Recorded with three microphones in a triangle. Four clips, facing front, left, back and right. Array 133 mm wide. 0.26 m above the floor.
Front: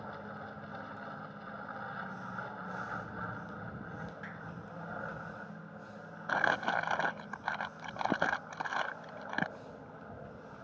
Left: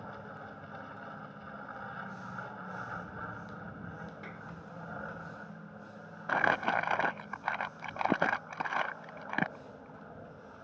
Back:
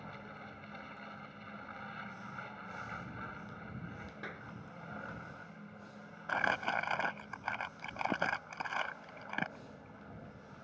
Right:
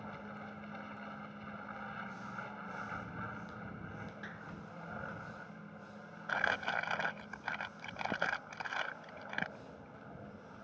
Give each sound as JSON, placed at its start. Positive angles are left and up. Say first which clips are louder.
{"t": 0.0, "sound": "an aircraft", "louder": "left 2 dB, front 5 dB", "azimuth_deg": 30}
{"t": 4.2, "sound": "a clap", "louder": "left 2 dB, front 1 dB", "azimuth_deg": 160}
{"t": 6.3, "sound": "crumpling", "louder": "left 6 dB, front 3 dB", "azimuth_deg": 80}